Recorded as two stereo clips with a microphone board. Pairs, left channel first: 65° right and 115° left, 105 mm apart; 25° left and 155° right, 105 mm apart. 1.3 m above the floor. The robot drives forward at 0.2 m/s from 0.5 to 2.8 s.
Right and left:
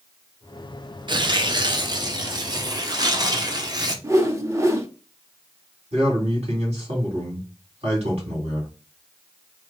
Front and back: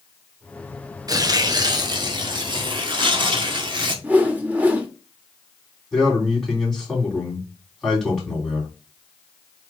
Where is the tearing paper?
150° left, 0.6 m; by 3.9 s 160° left, 0.9 m.